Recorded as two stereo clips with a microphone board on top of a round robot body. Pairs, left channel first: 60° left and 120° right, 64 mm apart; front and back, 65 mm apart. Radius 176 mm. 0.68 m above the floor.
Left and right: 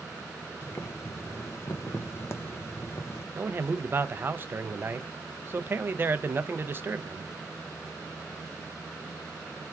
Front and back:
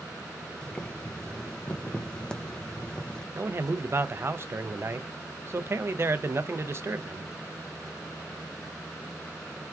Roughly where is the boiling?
Left.